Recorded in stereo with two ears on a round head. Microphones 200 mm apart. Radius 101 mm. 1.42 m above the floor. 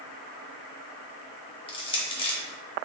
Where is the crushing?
20° left (ahead or behind), 0.8 m.